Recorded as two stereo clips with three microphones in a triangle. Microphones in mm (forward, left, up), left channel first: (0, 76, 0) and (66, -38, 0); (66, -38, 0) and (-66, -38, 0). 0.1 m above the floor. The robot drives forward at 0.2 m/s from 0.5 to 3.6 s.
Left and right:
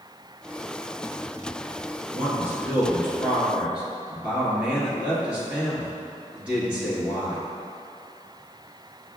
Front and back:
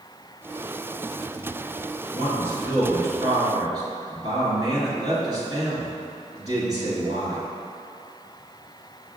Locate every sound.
2.1 s a man speaking: 125° right, 1.4 m; by 7.5 s 135° right, 1.5 m